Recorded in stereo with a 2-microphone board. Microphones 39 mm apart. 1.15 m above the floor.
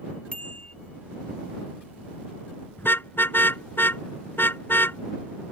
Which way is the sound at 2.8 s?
65° left (ahead or behind).